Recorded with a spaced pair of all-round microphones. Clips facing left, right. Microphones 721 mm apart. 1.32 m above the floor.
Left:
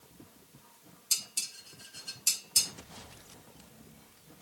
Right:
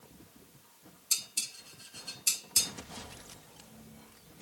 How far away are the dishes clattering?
About 4 m.